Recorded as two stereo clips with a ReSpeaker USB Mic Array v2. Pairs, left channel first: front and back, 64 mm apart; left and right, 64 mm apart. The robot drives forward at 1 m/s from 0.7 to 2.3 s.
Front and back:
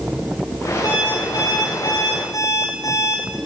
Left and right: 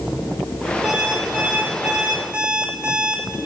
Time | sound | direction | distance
0.8 | an alarm clock | 10° right | 4.5 m